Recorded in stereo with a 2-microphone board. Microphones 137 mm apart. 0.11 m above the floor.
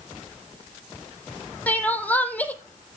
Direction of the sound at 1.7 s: 10° left (ahead or behind).